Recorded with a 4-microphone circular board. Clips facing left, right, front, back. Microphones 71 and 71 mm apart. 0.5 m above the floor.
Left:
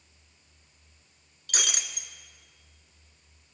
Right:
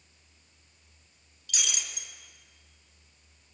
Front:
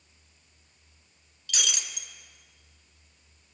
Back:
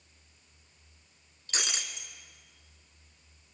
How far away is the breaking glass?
About 1.9 m.